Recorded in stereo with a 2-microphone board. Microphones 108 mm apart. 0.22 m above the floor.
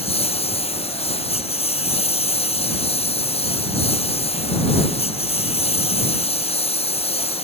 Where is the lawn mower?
65° left (ahead or behind).